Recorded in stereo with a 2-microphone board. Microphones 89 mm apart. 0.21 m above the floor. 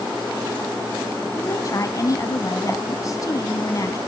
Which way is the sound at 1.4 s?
40° left (ahead or behind).